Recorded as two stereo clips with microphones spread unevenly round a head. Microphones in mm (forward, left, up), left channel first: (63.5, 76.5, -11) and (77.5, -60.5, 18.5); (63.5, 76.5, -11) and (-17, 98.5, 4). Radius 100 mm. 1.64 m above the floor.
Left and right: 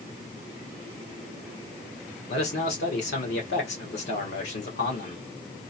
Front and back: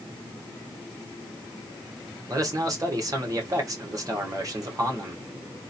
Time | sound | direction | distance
2.3 | a man speaking | 120° left | 1.5 m